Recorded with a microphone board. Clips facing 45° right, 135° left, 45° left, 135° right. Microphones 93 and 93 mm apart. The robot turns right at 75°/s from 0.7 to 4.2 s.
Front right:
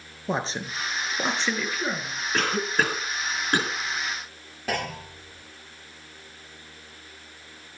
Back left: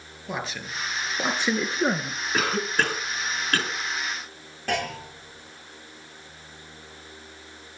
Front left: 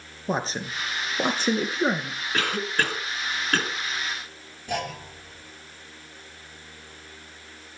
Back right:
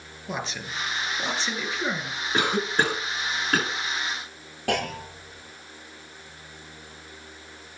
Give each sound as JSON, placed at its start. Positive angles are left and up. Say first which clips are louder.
{"t": 0.3, "sound": "a man speaking", "louder": "front right 4 dB, front left 5 dB", "azimuth_deg": 5, "distance_m": 2.0}
{"t": 2.3, "sound": "a cough", "louder": "even, back right 3 dB", "azimuth_deg": -155, "distance_m": 1.4}
{"t": 4.7, "sound": "a clunk", "louder": "back left 2 dB, back right 3 dB", "azimuth_deg": -130, "distance_m": 8.5}